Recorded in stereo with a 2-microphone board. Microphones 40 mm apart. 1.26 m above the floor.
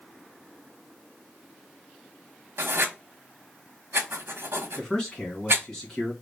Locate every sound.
2.6 s writing: 70° right (ahead or behind), 0.9 m
4.8 s a man speaking: 20° left (ahead or behind), 2 m